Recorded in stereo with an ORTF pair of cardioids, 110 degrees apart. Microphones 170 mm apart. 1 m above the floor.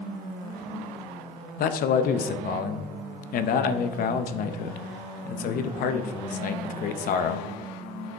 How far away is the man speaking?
About 0.7 m.